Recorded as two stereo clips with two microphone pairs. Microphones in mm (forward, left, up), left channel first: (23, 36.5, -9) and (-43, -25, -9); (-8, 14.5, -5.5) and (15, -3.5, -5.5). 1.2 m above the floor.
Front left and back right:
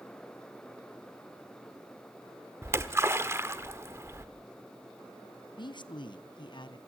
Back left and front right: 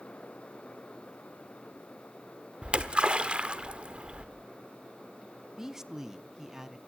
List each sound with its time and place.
2.6 s a splash: 85° right, 1.2 m
5.6 s a man speaking: 25° left, 0.9 m